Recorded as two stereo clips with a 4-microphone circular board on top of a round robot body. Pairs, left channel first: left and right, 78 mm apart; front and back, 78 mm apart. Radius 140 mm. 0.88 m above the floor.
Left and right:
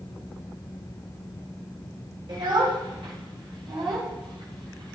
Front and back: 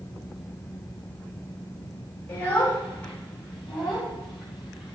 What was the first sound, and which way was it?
A child speaking, 65° right.